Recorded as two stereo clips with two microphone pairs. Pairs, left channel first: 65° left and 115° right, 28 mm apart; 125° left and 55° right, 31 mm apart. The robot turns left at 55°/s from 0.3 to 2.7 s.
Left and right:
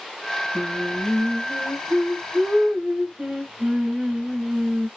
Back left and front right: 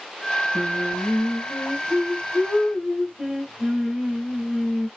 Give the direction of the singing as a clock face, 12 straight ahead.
1 o'clock.